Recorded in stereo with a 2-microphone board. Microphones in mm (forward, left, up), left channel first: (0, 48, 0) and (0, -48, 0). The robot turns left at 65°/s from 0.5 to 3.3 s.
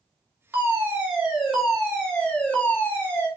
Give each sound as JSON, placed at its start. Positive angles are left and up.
{"t": 0.5, "sound": "a fire alarm", "side_deg": -20, "distance_m": 1.9}